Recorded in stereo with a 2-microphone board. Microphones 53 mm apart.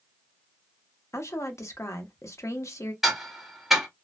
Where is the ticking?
5° right (ahead or behind), 0.9 m.